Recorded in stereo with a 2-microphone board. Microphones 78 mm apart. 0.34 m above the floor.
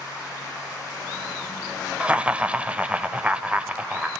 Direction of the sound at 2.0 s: 15° right (ahead or behind).